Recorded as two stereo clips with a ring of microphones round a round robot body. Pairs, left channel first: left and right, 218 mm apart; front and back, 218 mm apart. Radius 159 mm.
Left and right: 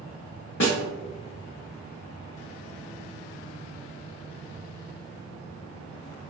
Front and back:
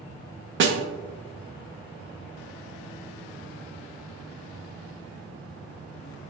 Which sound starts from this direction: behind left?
A snare drum, at 0.6 s.